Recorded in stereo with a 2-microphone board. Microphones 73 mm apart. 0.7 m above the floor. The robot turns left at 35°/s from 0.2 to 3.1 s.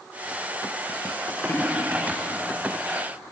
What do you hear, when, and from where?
1.4 s a splash: 50° left (ahead or behind), 1.4 m; by 2.5 s 10° left (ahead or behind), 1.4 m